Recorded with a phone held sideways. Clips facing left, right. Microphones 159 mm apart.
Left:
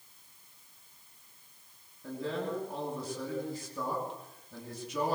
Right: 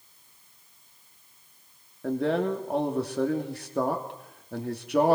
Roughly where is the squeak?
No squeak in this recording.